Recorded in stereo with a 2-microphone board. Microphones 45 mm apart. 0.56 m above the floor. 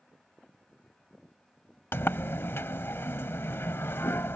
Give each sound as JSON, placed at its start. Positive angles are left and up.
{"t": 1.9, "sound": "a sliding door", "side_deg": 65}